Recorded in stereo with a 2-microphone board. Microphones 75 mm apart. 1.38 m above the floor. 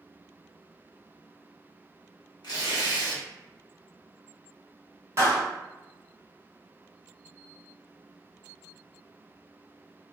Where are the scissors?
I don't hear scissors.